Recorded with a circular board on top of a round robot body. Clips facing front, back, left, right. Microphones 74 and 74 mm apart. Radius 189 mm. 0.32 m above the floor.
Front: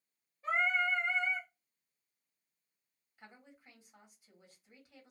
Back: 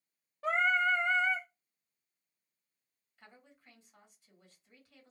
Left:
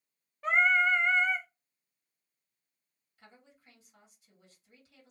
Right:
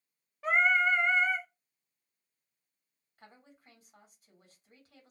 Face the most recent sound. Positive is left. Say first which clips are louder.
# front 2 dB, right 2 dB
turn(degrees=-75)